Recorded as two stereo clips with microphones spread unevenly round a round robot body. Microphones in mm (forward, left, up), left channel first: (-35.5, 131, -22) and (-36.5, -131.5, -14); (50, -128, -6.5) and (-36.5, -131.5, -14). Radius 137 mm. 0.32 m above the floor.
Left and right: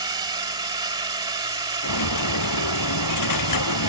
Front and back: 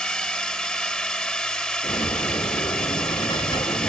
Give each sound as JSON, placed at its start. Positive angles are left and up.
{"t": 0.0, "sound": "a drone", "azimuth_deg": -60}
{"t": 1.8, "sound": "a dropped coin", "azimuth_deg": 70}